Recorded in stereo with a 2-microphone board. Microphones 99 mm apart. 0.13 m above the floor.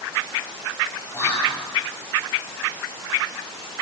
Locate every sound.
1.1 s whispering: 30° left (ahead or behind), 6.5 m